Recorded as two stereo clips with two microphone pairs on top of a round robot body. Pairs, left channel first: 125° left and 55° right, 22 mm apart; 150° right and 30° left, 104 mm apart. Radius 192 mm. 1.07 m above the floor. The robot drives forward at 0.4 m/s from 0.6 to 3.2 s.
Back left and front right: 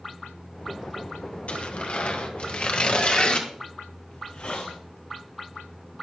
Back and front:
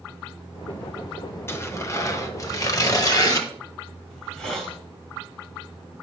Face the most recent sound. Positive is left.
turn(degrees=125)